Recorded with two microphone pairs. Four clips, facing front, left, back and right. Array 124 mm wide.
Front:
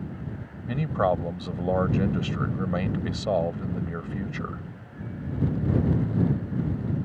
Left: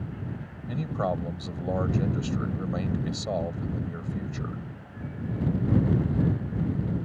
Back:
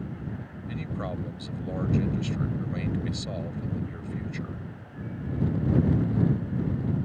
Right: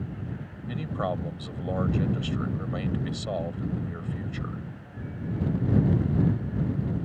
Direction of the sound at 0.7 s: 5° left.